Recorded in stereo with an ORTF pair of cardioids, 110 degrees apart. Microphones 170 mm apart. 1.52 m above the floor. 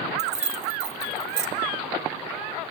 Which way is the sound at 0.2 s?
40° right.